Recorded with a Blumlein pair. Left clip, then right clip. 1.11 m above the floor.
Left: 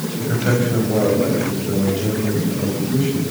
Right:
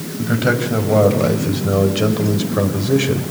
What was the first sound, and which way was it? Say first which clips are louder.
A man speaking: right 3 dB; 20° right.